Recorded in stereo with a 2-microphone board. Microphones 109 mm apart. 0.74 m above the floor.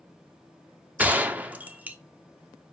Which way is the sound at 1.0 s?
15° right (ahead or behind).